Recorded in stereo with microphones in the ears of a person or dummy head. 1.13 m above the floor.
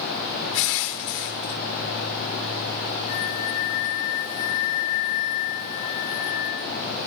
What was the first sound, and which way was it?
Crushing, 55° left (ahead or behind).